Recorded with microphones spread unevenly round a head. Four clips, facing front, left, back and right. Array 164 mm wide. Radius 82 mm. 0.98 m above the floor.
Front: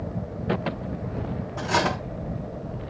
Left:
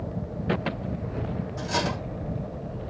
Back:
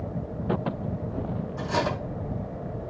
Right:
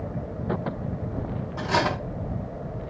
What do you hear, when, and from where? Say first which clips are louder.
1.6 s cutlery clinking: right 5 dB, front 3 dB; 40° right, 5 m